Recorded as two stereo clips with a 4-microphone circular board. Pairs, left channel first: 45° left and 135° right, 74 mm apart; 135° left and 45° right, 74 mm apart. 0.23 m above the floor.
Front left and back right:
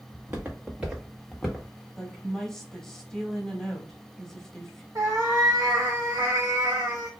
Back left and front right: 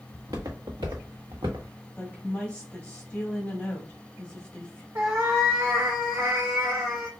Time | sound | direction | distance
0.1 | footsteps | 80° right | 1.3 m
2.0 | a woman speaking | 115° left | 1.0 m
5.0 | a cat meowing | 90° right | 1.4 m